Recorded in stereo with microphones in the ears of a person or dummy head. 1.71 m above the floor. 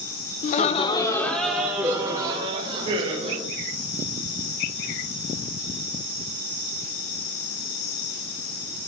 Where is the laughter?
50° left (ahead or behind), 0.8 m; by 3.4 s 40° right (ahead or behind), 1.9 m.